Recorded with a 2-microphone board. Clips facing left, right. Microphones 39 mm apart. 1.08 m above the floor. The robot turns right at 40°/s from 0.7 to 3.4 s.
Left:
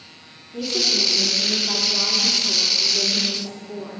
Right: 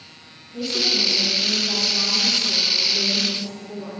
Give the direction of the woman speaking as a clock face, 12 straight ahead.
11 o'clock.